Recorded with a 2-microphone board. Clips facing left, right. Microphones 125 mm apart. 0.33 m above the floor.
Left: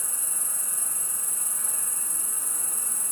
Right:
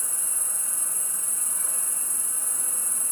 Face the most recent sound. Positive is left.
turn(degrees=-25)  # may be behind; listen again after turning